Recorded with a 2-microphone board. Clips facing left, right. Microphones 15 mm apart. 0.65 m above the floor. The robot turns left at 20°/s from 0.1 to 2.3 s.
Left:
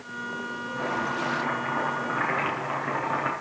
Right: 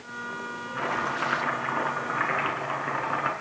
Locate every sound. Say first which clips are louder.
0.8 s chopping: right 1 dB; 135° right, 7 m; by 3.3 s 165° right, 7 m